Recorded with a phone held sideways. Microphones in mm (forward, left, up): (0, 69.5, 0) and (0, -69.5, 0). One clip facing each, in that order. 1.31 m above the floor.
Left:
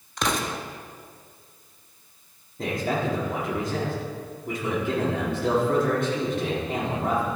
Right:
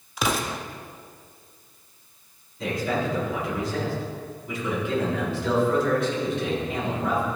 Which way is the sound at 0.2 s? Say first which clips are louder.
Right 1 dB; 5° right (ahead or behind).